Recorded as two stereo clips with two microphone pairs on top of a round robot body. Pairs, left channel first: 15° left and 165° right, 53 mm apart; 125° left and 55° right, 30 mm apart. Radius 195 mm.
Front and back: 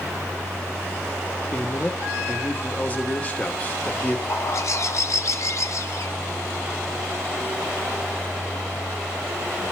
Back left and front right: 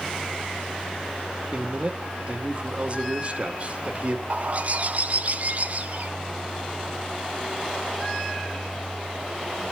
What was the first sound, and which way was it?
A man speaking, 50° right.